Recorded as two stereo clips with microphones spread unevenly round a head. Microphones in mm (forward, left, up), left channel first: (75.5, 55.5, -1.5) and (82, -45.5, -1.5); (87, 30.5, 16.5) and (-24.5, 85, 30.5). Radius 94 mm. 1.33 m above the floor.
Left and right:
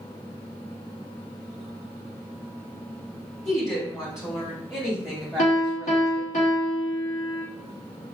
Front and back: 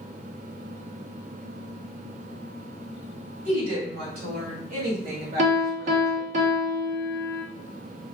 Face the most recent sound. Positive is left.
turn(degrees=130)